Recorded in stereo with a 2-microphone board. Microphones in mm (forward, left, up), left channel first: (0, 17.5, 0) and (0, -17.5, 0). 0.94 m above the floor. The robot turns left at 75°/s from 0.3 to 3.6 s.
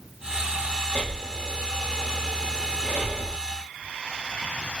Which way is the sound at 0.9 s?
60° left (ahead or behind).